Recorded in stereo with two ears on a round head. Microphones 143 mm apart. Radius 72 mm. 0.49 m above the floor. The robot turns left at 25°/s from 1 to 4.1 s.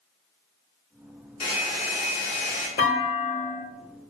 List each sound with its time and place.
1.4 s a hair dryer: 95° left, 1.5 m; by 2.7 s 60° left, 1.5 m
2.8 s a clunk: 75° left (ahead or behind), 1.2 m; by 3.6 s 65° left (ahead or behind), 1.2 m